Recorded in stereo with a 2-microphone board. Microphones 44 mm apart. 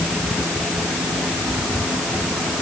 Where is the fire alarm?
I don't hear a fire alarm.